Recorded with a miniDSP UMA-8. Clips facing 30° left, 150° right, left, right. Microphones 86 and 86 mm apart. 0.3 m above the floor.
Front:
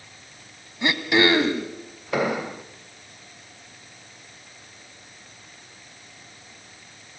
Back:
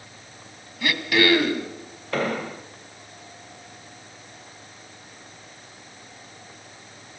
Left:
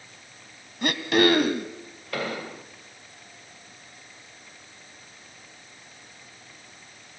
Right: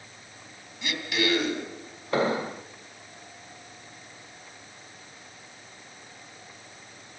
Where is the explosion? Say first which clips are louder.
Front 2 dB, right 6 dB; 45° right, 1.0 m.